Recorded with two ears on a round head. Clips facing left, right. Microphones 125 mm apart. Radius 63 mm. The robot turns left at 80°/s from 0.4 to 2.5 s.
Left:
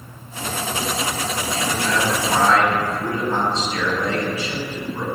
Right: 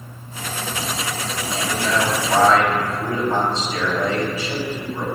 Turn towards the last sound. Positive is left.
turn(degrees=-105)